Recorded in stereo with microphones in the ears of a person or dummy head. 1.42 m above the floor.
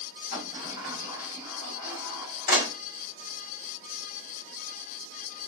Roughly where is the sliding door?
Left.